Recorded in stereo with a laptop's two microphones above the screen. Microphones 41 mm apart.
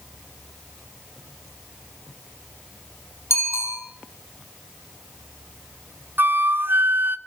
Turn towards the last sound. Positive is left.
turn(degrees=-50)  # may be behind; listen again after turning